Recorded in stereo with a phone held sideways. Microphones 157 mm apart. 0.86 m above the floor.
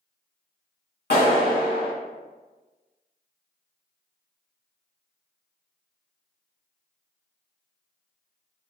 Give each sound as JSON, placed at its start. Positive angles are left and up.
{"t": 1.1, "sound": "a clap", "side_deg": 80, "distance_m": 1.6}